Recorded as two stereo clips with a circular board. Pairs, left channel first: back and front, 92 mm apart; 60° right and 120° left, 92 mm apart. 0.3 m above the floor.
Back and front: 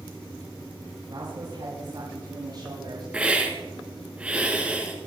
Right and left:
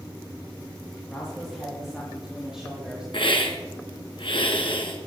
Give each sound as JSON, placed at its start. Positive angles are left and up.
{"t": 1.1, "sound": "a woman speaking", "azimuth_deg": 30, "distance_m": 5.5}
{"t": 3.1, "sound": "a hiss", "azimuth_deg": -75, "distance_m": 2.5}